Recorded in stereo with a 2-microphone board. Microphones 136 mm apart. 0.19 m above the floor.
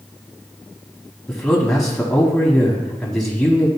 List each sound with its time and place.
1.3 s a man speaking: 5° left (ahead or behind), 1.0 m